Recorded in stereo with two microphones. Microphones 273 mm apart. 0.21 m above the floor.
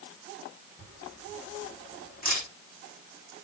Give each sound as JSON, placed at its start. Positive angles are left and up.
{"t": 0.8, "sound": "a camera shutter", "side_deg": 35, "distance_m": 6.5}